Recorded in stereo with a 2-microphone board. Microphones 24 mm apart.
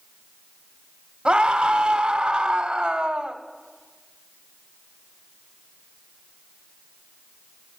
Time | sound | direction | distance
1.2 | a scream | 50° right (ahead or behind) | 1.3 m